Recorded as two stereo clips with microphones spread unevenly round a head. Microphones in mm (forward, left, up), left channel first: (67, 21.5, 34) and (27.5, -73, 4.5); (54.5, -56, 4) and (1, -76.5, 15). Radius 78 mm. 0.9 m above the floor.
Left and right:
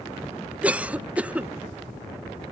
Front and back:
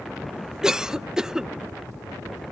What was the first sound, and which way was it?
A cough, 75° right.